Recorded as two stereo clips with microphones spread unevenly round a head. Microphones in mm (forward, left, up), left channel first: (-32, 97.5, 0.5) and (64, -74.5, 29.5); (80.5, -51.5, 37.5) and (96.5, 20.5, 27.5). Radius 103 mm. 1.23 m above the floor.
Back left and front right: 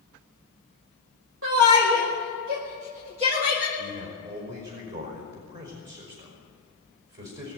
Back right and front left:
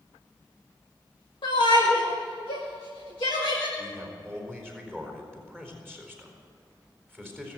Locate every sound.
1.4 s a shout: 95° right, 2 m; by 3.7 s 130° right, 2 m
3.8 s a man speaking: 25° right, 4 m